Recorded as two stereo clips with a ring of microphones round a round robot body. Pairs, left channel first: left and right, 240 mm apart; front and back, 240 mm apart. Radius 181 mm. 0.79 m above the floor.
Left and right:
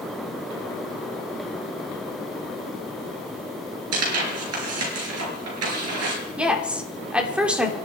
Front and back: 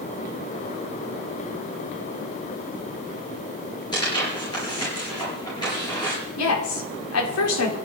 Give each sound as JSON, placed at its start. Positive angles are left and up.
{"t": 3.9, "sound": "tearing paper", "azimuth_deg": -80, "distance_m": 5.5}
{"t": 6.4, "sound": "a woman speaking", "azimuth_deg": -5, "distance_m": 3.0}